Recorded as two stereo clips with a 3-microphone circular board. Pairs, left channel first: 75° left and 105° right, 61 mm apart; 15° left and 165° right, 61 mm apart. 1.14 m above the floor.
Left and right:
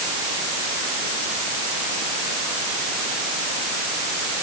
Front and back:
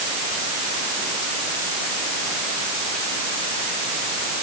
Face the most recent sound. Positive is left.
No sound to turn to.